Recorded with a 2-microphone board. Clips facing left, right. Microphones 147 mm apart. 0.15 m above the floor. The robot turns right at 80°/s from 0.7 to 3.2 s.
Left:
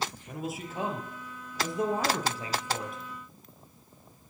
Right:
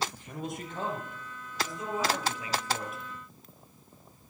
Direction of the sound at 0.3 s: 5° left.